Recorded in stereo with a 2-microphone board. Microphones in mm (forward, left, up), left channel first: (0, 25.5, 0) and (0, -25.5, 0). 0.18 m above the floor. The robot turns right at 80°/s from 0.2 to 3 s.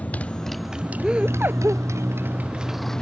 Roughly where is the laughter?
Behind.